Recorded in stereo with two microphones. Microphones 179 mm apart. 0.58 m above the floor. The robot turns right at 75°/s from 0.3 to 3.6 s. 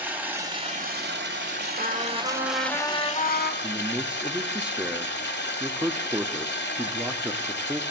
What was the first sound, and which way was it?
Running water, 170° right.